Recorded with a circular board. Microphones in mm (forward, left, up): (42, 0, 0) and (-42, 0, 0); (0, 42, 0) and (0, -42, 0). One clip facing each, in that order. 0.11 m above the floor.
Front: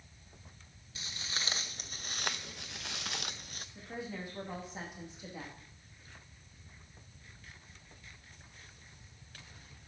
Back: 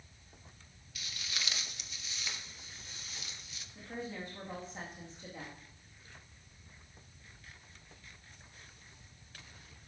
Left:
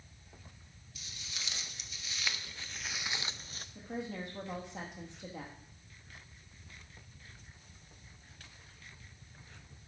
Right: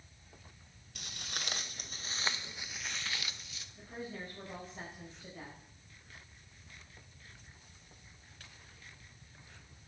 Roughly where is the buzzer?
No buzzer in this recording.